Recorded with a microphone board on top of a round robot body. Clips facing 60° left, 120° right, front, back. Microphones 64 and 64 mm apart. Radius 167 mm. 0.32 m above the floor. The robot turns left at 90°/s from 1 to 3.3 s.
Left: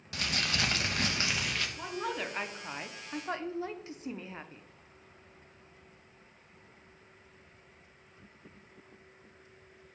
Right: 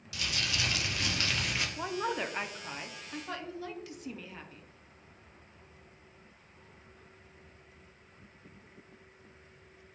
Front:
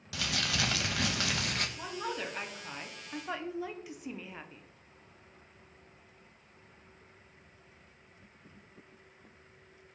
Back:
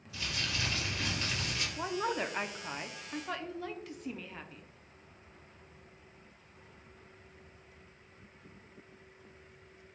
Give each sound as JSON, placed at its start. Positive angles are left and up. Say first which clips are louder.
{"t": 0.1, "sound": "crumpling", "louder": "left 2 dB, front 4 dB", "azimuth_deg": 10, "distance_m": 0.8}
{"t": 1.8, "sound": "a woman speaking", "louder": "right 2 dB, back 4 dB", "azimuth_deg": -150, "distance_m": 1.0}